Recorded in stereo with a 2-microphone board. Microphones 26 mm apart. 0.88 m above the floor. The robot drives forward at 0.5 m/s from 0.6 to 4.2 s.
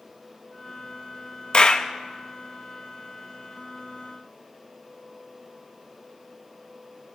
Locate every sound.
1.5 s a clap: 45° left (ahead or behind), 0.9 m; by 1.9 s 40° left (ahead or behind), 1.0 m